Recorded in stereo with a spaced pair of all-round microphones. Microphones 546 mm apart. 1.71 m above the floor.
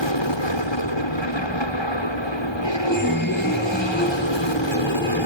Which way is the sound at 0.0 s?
55° left (ahead or behind).